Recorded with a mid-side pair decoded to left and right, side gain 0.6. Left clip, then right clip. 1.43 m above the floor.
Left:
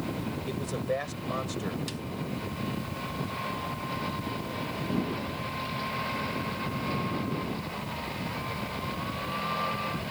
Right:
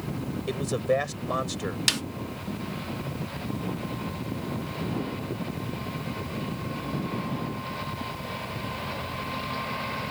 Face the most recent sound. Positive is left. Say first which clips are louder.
# right 14 dB
turn(degrees=-70)